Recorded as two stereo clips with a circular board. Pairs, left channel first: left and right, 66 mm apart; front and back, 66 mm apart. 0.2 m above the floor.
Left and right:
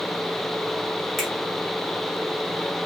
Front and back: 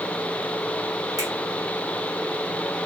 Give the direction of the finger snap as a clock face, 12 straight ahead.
6 o'clock.